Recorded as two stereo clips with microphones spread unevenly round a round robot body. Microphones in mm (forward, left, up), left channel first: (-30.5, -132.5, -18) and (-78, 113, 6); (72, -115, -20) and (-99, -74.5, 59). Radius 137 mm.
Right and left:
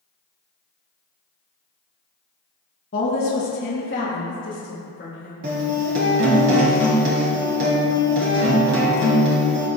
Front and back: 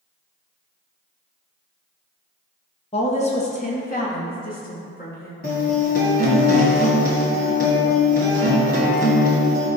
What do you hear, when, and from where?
2.9 s a woman speaking: 40° right, 1.0 m; by 5.3 s 30° right, 2 m
5.4 s a guitar: 55° left, 1.7 m